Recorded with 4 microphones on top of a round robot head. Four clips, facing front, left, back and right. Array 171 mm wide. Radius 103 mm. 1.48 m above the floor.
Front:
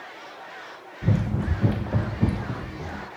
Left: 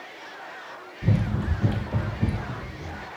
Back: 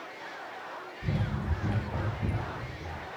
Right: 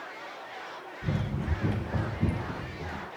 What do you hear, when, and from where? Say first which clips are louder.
1.0 s running footsteps: left 6 dB, front 8 dB; 35° left, 2 m; by 3.1 s 5° right, 4 m